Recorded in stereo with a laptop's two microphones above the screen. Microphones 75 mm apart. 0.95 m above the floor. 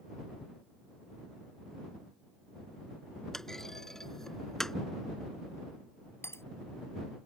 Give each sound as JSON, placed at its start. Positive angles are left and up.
{"t": 3.3, "sound": "a clunk", "side_deg": 5}
{"t": 6.2, "sound": "breaking glass", "side_deg": 35}